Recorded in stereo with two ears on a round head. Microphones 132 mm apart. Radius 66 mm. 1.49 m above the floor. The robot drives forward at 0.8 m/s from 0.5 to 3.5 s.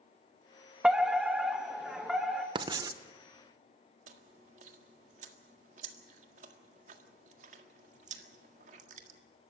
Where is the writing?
30° right (ahead or behind), 0.9 m; by 3.0 s 25° right (ahead or behind), 1.2 m.